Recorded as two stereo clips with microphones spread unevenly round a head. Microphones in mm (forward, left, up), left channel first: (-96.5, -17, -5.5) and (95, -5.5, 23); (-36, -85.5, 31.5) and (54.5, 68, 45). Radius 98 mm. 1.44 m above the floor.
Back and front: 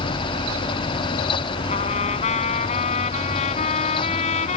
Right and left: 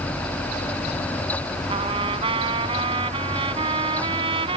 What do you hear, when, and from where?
1.7 s a trumpet: 125° left